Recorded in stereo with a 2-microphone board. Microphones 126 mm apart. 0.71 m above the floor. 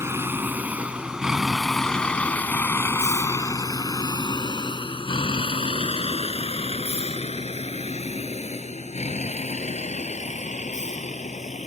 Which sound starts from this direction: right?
A vehicle, at 0.0 s.